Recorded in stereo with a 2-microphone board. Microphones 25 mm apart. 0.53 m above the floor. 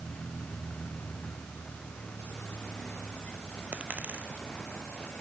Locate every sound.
0.0 s a vehicle: 55° left (ahead or behind)
3.7 s a dropped coin: 80° right